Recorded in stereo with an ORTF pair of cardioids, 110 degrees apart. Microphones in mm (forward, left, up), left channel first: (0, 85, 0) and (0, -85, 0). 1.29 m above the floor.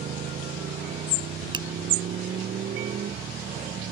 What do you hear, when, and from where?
0.0 s a motorcycle: 55° right
1.5 s a finger snap: 25° right